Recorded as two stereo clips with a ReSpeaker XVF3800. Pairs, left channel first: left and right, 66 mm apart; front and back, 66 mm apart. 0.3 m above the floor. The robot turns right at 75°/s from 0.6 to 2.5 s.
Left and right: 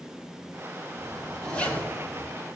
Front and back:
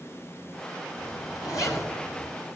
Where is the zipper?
20° right, 4 m; by 2.3 s 80° left, 4 m.